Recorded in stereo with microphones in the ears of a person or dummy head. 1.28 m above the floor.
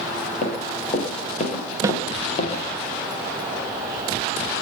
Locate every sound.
0.4 s running footsteps: 45° left (ahead or behind), 9.5 m; by 2.6 s 35° left (ahead or behind), 8.5 m
1.8 s a snare drum: 20° right (ahead or behind), 1.5 m